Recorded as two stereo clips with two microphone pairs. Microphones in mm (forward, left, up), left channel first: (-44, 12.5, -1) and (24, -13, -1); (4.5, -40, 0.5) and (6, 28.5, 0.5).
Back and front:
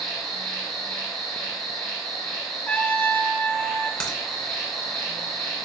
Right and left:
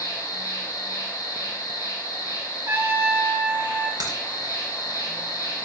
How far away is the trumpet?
About 0.9 m.